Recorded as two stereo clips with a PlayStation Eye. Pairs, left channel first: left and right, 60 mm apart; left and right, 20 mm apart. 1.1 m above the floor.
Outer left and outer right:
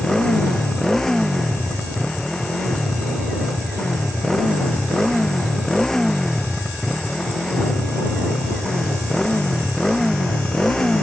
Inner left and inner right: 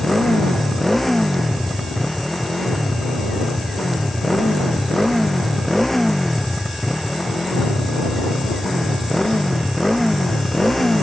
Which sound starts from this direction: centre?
A motorcycle, at 0.0 s.